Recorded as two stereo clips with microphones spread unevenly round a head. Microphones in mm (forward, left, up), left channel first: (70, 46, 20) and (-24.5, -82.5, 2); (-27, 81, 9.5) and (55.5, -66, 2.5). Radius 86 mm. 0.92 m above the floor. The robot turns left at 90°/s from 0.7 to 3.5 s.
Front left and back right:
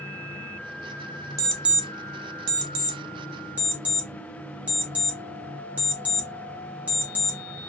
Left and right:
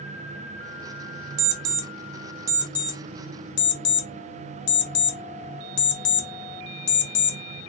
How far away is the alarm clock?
About 0.7 m.